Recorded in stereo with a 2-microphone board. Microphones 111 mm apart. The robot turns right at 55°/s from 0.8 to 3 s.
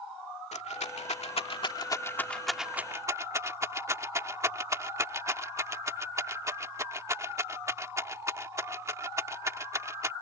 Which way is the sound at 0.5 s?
85° left.